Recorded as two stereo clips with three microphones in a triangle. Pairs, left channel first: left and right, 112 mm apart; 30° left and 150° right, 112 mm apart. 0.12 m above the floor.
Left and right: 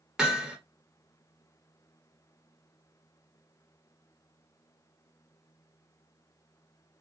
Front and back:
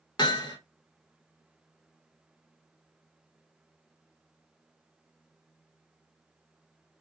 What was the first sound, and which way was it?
Hammering, 5° right.